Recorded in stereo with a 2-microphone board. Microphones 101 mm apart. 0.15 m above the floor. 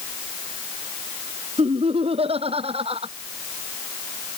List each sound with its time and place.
1.6 s laughter: 75° right (ahead or behind)